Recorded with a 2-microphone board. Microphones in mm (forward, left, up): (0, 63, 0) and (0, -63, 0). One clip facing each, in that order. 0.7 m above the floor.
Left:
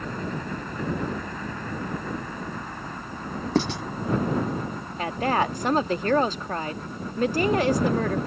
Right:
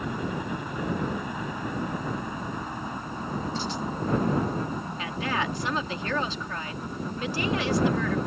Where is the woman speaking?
45° left (ahead or behind).